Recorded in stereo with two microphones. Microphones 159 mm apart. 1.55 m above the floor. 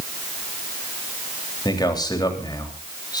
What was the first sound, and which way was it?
A man speaking, 25° left (ahead or behind).